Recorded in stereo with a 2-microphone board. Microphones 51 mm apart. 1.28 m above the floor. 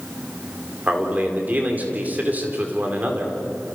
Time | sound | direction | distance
0.9 | a man speaking | 35° right (ahead or behind) | 4.5 m